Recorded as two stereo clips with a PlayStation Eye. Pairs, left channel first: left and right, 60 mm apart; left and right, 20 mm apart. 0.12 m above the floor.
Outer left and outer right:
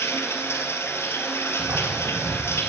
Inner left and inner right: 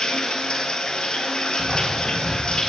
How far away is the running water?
About 1.6 m.